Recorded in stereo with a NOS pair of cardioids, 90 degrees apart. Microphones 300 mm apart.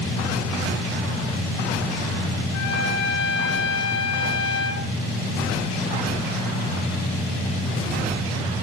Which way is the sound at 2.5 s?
60° left.